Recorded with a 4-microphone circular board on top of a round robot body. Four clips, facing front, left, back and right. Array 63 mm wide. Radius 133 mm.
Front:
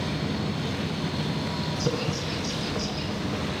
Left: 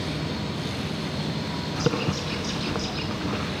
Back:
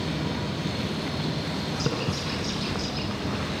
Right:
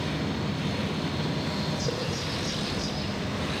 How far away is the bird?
About 1.5 m.